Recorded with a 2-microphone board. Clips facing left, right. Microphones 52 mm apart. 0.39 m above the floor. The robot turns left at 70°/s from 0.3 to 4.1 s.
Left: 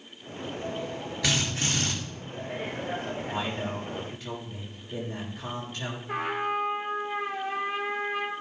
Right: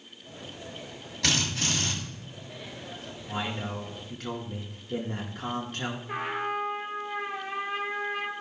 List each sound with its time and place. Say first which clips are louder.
1.2 s a drill: right 1 dB; 170° left, 5.5 m; by 1.9 s 120° left, 5.5 m
3.3 s a man speaking: right 2 dB; 15° right, 4.5 m; by 6.0 s 75° right, 4.5 m
6.1 s a trumpet: left 3 dB; 5° right (ahead or behind), 4 m